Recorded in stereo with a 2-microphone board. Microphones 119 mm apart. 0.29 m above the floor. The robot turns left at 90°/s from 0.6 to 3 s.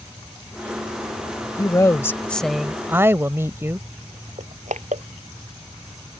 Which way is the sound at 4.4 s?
80° right.